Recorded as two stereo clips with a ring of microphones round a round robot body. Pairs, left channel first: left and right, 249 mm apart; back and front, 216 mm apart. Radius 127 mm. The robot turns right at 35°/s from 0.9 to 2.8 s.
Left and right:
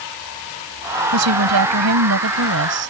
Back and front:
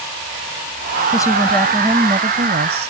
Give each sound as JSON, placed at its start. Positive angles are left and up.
{"t": 1.1, "sound": "a woman speaking", "azimuth_deg": -105}